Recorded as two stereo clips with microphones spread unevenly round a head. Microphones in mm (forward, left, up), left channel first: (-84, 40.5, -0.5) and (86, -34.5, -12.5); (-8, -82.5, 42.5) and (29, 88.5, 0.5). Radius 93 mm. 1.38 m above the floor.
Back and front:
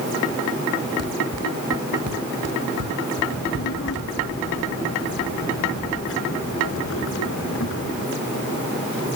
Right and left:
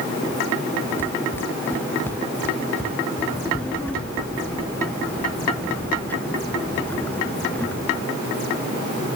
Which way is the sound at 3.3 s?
Straight behind.